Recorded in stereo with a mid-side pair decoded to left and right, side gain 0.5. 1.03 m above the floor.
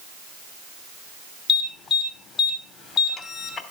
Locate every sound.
1.5 s an alarm: 55° left, 2.5 m